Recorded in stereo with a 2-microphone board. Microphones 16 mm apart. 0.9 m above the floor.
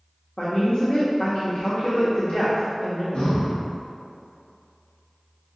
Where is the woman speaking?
65° left (ahead or behind), 0.9 m.